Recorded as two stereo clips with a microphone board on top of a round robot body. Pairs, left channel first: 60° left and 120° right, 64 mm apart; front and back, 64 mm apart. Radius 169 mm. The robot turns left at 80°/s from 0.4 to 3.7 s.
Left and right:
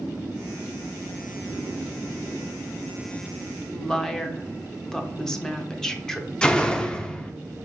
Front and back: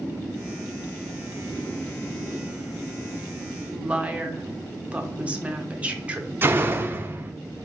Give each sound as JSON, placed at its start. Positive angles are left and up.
{"t": 3.7, "sound": "a woman speaking", "azimuth_deg": 135, "distance_m": 0.9}
{"t": 6.4, "sound": "a door slam", "azimuth_deg": 135, "distance_m": 0.6}